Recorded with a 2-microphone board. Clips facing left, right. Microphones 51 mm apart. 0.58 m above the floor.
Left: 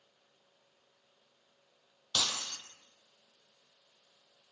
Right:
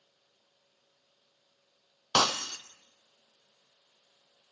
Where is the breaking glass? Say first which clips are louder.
Right 9 dB; 60° right (ahead or behind), 1.2 m.